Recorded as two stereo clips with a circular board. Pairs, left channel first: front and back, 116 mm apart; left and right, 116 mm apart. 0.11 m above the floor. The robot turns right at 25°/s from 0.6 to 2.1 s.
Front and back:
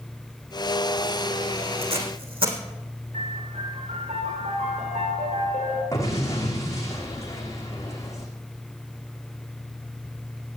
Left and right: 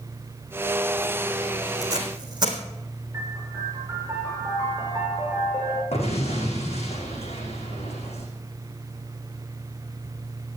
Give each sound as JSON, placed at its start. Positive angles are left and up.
{"t": 1.8, "sound": "tape being pulled", "azimuth_deg": -150, "distance_m": 3.0}
{"t": 3.1, "sound": "a piano", "azimuth_deg": -165, "distance_m": 8.0}
{"t": 5.9, "sound": "an explosion", "azimuth_deg": 65, "distance_m": 7.5}